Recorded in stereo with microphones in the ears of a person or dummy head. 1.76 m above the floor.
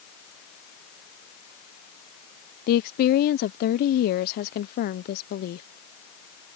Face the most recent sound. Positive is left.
turn(degrees=50)  # may be behind; listen again after turning